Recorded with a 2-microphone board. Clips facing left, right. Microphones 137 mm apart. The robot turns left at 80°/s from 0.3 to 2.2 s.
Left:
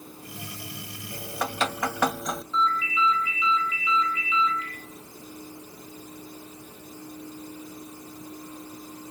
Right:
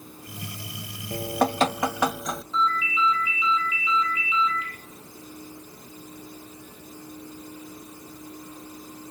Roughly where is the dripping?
Right.